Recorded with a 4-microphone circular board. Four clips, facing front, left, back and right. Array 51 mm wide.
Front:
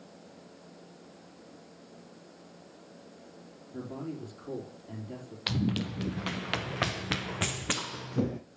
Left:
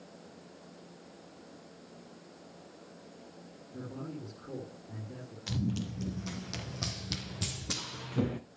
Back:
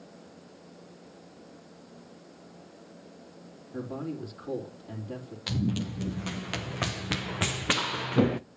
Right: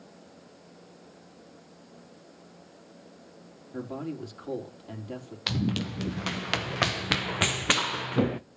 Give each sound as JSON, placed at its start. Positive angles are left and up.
{"t": 3.7, "sound": "a man speaking", "azimuth_deg": -105, "distance_m": 4.5}
{"t": 5.5, "sound": "running footsteps", "azimuth_deg": -55, "distance_m": 1.8}